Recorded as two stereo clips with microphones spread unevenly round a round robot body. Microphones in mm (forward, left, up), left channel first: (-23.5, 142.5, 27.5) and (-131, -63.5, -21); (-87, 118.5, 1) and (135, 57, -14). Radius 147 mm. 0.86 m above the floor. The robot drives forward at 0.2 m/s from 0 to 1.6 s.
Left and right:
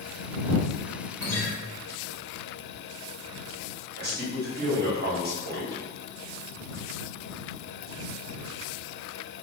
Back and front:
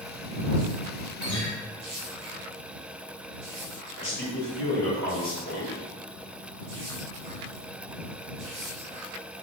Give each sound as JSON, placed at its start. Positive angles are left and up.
{"t": 1.2, "sound": "a guitar", "azimuth_deg": 135, "distance_m": 1.3}
{"t": 4.0, "sound": "a man speaking", "azimuth_deg": -145, "distance_m": 1.2}